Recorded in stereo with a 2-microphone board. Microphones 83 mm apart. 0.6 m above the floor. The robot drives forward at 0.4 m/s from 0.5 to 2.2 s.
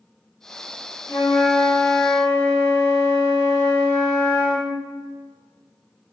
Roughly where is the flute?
Left.